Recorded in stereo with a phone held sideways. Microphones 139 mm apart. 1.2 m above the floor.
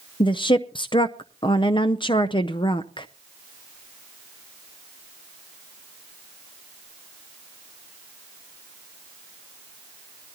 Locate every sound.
0.2 s a woman speaking: 35° left (ahead or behind), 0.6 m